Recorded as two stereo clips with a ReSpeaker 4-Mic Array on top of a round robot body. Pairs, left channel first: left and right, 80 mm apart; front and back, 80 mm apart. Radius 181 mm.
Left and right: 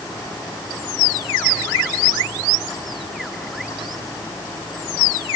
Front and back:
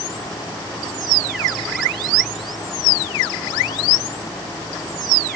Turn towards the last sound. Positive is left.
No sound to turn to.